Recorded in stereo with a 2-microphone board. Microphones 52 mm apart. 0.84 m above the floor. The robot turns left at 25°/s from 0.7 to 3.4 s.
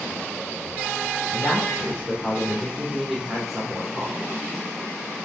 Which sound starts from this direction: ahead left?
A woman speaking, at 1.3 s.